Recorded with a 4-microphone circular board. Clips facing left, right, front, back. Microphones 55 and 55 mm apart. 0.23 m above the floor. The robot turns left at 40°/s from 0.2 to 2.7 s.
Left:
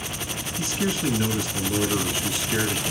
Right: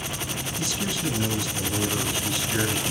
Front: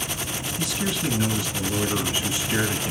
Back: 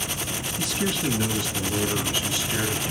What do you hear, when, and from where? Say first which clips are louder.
0.6 s a man speaking: left 4 dB, back 1 dB; 100° left, 1.3 m; by 2.9 s 15° left, 1.3 m